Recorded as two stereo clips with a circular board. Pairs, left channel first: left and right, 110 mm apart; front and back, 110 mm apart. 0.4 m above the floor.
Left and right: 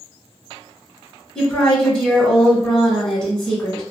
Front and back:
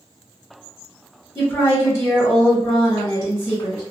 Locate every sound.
1.4 s a woman speaking: 30° left, 1.1 m